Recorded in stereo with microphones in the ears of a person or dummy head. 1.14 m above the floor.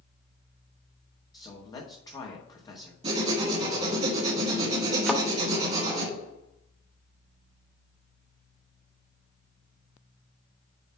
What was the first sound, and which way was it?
A man speaking, 25° left (ahead or behind).